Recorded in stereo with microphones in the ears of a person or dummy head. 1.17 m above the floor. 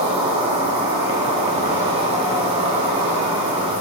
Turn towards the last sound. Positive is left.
turn(degrees=-30)  # may be behind; listen again after turning